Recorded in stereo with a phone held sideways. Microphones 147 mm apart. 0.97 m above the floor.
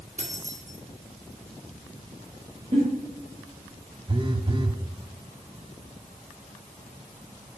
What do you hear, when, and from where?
0.2 s keys jangling: 55° right (ahead or behind), 1.1 m
2.7 s a giggle: 50° right (ahead or behind), 2 m
4.1 s a phone buzzing: 35° right (ahead or behind), 0.5 m